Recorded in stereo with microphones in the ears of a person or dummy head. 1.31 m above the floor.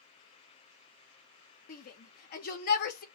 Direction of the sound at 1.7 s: 55° left (ahead or behind).